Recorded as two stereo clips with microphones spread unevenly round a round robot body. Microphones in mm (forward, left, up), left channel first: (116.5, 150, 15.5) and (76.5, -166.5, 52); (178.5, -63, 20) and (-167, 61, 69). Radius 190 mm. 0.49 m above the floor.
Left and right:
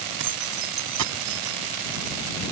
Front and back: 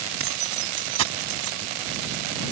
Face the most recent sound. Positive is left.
turn(degrees=-165)